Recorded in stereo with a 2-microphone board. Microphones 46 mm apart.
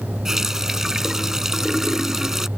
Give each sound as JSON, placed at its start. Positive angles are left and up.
{"t": 0.2, "sound": "a running tap", "side_deg": -10}